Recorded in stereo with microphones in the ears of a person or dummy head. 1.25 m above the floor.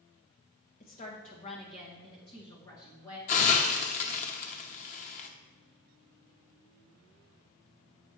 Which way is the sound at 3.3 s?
40° left (ahead or behind).